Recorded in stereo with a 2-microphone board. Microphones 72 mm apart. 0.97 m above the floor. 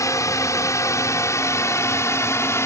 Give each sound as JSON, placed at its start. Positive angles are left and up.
{"t": 0.0, "sound": "a drone", "side_deg": 45}